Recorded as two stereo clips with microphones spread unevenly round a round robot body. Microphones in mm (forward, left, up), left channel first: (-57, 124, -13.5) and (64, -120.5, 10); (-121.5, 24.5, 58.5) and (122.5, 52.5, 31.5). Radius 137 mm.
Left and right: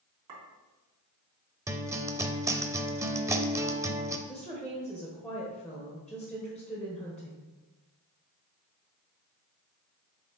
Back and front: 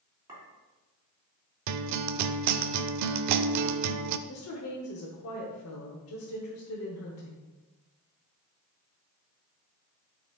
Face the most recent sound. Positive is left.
turn(degrees=-160)